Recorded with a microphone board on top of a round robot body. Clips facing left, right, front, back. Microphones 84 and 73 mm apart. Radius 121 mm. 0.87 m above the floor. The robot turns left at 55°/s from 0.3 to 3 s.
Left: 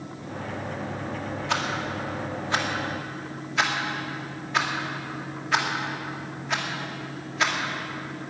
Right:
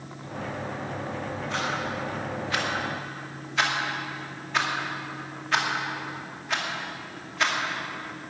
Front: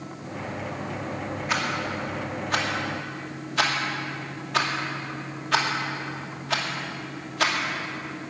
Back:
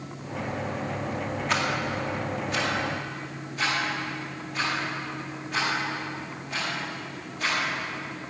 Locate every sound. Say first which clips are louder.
1.5 s a rattle: left 2 dB, even; 85° left, 2.5 m; by 7.6 s straight ahead, 2.5 m